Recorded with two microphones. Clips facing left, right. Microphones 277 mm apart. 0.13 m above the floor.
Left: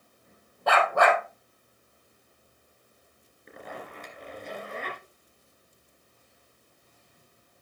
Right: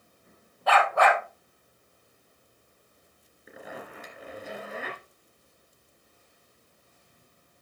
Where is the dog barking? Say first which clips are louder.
Even; 50° left (ahead or behind), 2 m.